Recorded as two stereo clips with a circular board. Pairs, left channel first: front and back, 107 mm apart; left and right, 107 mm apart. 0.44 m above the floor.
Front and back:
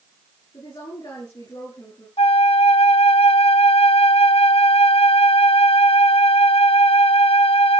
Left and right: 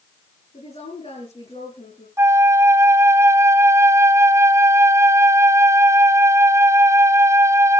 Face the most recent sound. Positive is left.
turn(degrees=-25)